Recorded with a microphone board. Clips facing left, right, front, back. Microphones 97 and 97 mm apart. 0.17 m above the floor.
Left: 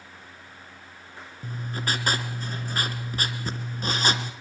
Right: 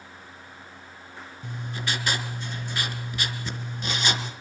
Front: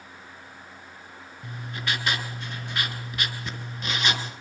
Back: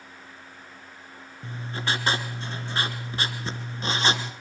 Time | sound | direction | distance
1.4 | writing | 130° left | 3 m